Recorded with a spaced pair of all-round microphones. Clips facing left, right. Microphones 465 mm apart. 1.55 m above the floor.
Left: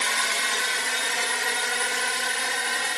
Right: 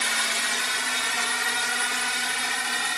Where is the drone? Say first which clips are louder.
Left 1 dB; 30° right (ahead or behind); by 3.0 s 25° right (ahead or behind).